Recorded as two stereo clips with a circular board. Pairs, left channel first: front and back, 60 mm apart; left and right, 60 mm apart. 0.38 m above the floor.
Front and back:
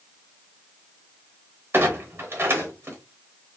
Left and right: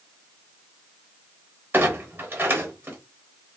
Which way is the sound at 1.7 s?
140° right.